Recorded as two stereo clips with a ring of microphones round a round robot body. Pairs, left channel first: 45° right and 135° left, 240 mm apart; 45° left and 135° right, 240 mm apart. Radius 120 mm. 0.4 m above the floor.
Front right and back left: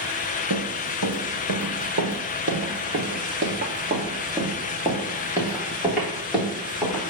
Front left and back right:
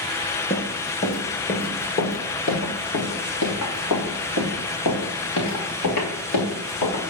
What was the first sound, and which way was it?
Running footsteps, 115° left.